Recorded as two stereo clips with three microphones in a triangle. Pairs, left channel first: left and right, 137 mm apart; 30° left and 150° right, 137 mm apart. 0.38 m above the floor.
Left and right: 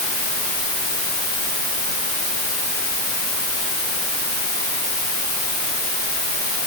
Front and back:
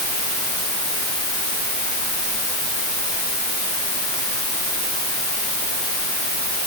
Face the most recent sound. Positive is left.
No sound to turn to.